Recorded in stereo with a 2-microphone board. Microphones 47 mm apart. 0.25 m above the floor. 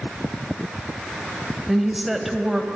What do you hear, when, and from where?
1.7 s a woman speaking: centre (ahead or behind), 0.9 m